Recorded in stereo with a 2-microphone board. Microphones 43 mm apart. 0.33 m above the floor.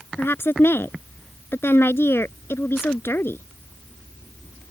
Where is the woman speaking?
65° left (ahead or behind).